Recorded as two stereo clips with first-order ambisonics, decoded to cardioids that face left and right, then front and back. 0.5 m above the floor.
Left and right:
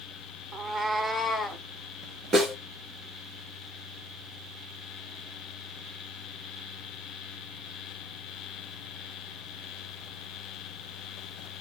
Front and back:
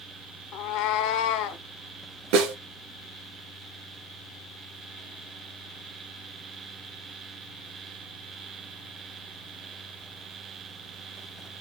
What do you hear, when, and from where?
0.5 s a cat meowing: 35° right, 0.6 m; by 1.6 s 10° left, 1.3 m
2.3 s a snare drum: 165° right, 2.5 m